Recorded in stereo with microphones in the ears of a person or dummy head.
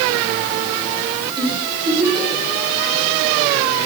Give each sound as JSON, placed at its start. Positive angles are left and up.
{"t": 1.4, "sound": "a giggle", "side_deg": -25, "distance_m": 8.0}